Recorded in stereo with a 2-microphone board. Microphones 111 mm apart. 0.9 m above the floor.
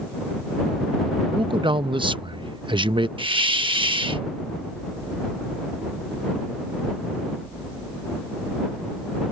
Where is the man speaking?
50° right (ahead or behind).